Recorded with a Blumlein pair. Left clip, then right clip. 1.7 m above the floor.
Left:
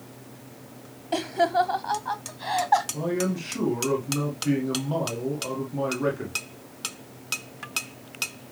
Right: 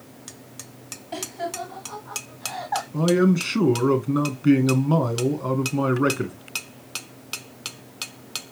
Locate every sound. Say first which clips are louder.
1.1 s laughter: left 8 dB; 20° left, 0.6 m; by 2.8 s 80° left, 1.3 m
2.9 s a man speaking: right 7 dB; 65° right, 1.9 m